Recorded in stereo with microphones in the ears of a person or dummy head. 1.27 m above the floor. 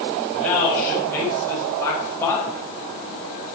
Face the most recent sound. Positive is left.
turn(degrees=20)  # may be behind; listen again after turning